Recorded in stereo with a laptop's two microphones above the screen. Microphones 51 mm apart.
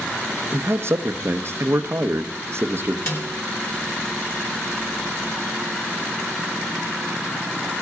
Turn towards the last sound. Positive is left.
turn(degrees=50)  # may be behind; listen again after turning